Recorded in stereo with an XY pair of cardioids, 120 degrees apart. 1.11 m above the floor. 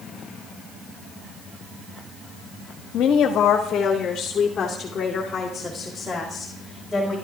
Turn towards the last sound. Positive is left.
turn(degrees=15)